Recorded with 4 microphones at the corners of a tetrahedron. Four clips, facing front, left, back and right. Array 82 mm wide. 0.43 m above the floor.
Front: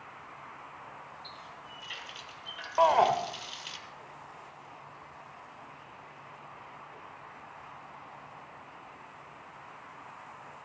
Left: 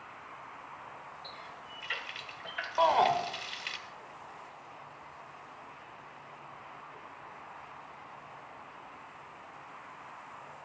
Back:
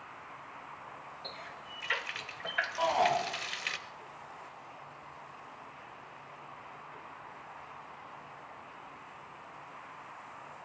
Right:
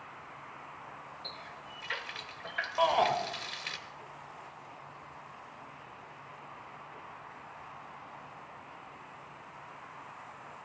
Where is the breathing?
I don't hear breathing.